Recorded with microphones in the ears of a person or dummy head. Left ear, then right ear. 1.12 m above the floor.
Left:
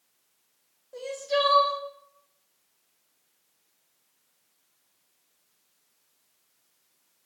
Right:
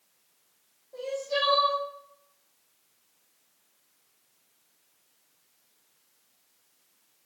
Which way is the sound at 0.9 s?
65° left (ahead or behind).